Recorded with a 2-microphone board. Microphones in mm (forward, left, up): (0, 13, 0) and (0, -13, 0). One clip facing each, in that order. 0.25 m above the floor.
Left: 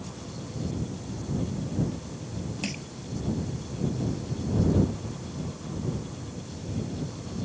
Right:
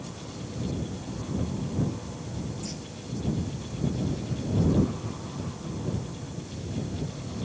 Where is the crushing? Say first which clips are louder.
Left 4 dB; 80° left.